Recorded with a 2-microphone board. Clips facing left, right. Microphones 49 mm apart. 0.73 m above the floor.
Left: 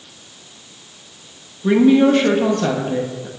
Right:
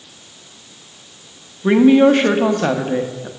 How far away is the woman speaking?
About 0.6 m.